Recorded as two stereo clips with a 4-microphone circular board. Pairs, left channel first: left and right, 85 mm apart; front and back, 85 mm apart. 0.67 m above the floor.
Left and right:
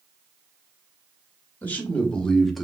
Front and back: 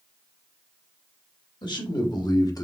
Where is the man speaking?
20° left, 1.3 m; by 2.6 s straight ahead, 0.9 m.